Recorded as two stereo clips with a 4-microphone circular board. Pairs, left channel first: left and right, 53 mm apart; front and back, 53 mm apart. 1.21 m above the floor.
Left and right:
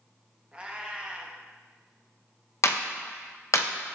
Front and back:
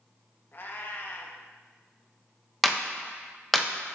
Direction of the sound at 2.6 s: 90° left.